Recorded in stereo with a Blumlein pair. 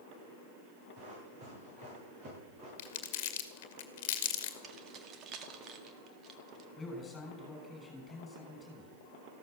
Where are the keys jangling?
30° right, 1.8 m.